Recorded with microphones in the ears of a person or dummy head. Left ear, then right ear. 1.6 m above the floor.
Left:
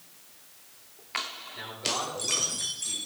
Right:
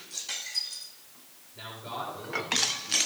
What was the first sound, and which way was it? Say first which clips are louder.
A man speaking: left 5 dB; 70° left (ahead or behind).